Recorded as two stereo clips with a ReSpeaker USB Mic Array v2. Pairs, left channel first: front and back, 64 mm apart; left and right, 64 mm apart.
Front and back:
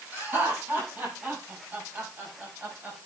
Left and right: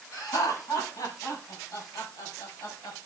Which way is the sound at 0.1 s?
125° left.